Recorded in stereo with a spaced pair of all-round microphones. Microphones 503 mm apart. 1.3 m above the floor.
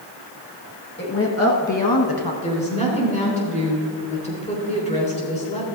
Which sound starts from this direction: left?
A woman speaking, at 1.0 s.